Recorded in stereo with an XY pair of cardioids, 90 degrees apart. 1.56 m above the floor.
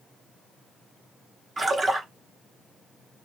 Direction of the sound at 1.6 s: 45° right.